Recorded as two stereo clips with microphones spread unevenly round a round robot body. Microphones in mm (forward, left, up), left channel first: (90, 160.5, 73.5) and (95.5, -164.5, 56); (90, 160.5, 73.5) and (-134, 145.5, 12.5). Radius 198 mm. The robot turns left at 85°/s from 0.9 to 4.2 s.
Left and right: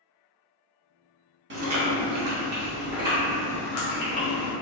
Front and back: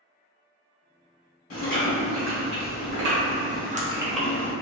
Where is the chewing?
35° right, 0.9 m; by 4.5 s 95° left, 0.9 m.